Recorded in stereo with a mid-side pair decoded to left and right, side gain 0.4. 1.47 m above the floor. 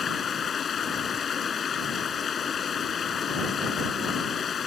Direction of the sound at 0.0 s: 50° left.